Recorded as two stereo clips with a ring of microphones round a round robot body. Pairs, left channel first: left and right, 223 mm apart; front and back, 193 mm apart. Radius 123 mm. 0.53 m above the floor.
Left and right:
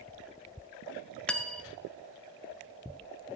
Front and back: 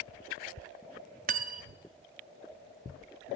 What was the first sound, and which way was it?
Cutlery clinking, 175° left.